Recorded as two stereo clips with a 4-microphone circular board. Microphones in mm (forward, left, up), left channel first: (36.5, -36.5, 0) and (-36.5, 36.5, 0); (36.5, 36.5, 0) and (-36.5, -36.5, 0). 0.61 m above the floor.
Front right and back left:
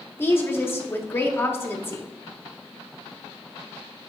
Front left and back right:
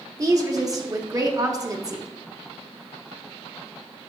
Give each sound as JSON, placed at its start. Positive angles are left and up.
{"t": 0.2, "sound": "a woman speaking", "azimuth_deg": -100, "distance_m": 0.9}